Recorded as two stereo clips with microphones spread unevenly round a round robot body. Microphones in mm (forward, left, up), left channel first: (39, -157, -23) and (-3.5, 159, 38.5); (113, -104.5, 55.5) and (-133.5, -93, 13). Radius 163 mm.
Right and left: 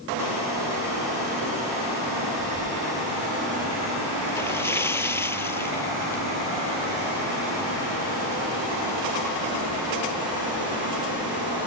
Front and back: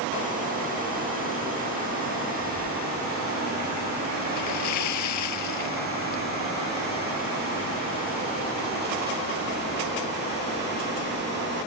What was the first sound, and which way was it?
A splash, 5° left.